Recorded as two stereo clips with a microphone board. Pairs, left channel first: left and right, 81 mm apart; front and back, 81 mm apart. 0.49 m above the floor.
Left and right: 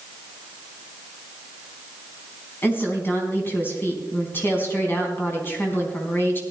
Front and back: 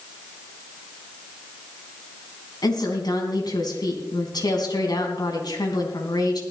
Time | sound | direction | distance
2.6 | a woman speaking | 30° left | 3 m